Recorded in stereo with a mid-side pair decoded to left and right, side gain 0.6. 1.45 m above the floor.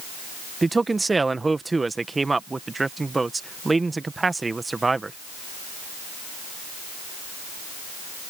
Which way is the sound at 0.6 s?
15° right.